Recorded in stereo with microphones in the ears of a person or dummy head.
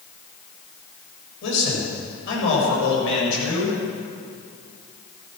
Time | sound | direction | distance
1.4 | a man speaking | 70° left (ahead or behind) | 7 m